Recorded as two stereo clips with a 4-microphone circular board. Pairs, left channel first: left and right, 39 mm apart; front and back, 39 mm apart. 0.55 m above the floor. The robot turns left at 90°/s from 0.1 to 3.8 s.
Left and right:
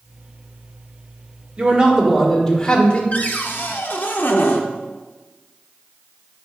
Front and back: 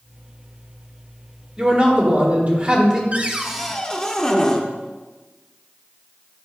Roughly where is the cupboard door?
Behind left.